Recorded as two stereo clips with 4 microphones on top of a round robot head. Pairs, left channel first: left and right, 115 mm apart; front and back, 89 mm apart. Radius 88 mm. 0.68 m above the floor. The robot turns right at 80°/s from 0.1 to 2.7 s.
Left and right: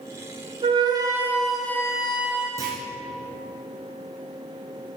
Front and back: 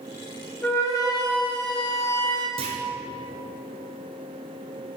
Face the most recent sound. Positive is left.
turn(degrees=-150)